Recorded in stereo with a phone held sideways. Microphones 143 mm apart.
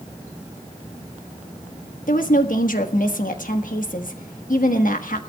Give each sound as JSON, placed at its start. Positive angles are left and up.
{"t": 2.1, "sound": "a woman speaking", "side_deg": 70, "distance_m": 1.3}